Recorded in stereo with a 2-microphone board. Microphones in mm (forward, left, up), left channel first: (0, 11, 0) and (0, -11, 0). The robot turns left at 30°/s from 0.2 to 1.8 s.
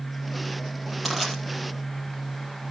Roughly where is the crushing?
Centre.